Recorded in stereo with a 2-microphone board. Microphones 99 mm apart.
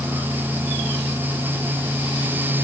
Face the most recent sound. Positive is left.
No sound to turn to.